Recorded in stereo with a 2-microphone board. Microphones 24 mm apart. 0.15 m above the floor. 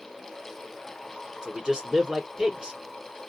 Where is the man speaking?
35° right (ahead or behind), 1.7 m.